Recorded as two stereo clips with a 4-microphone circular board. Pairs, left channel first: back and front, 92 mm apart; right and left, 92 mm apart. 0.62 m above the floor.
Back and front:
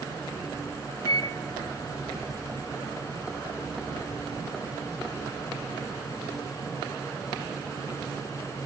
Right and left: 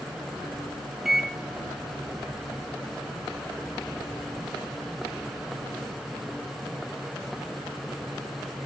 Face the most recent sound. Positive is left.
turn(degrees=175)